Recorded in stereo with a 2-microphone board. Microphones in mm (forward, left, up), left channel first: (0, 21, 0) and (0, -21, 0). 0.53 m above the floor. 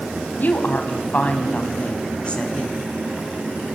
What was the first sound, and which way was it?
A woman speaking, 45° left (ahead or behind).